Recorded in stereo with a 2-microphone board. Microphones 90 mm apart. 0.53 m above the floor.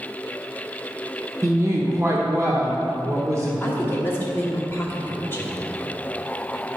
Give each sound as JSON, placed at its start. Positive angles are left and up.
{"t": 1.4, "sound": "a woman speaking", "side_deg": -35, "distance_m": 1.0}
{"t": 3.6, "sound": "a woman speaking", "side_deg": 25, "distance_m": 1.1}